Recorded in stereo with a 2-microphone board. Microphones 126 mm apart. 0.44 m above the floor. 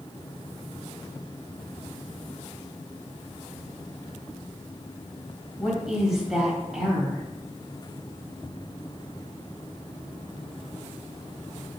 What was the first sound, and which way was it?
A woman speaking, 5° right (ahead or behind).